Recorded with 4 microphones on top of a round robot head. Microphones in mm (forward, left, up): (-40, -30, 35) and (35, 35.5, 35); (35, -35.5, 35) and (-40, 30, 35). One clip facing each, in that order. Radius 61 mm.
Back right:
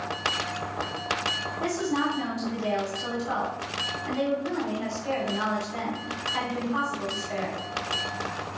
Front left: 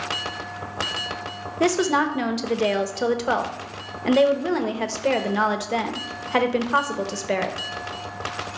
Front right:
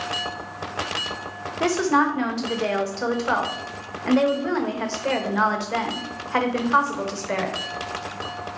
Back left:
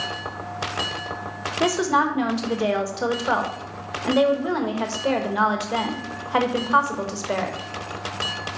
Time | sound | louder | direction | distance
1.6 | a woman speaking | front left 7 dB, even | 60° left | 1.1 m